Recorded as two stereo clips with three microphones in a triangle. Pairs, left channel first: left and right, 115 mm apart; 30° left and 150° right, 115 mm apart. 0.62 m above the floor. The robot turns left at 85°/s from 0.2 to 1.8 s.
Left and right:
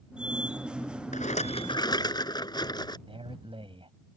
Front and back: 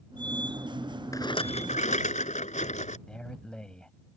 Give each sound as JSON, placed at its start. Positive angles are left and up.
{"t": 1.1, "sound": "a rattle", "azimuth_deg": 95}
{"t": 3.1, "sound": "a man speaking", "azimuth_deg": -50}